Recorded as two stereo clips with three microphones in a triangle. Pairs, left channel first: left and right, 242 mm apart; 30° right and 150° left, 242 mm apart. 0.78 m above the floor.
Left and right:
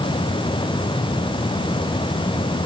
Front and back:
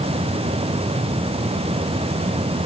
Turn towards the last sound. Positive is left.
No sound to turn to.